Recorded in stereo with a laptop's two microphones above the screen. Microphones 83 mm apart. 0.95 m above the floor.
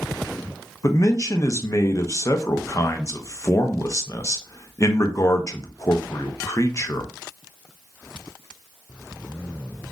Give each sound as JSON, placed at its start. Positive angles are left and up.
{"t": 0.8, "sound": "a man speaking", "side_deg": 40, "distance_m": 0.6}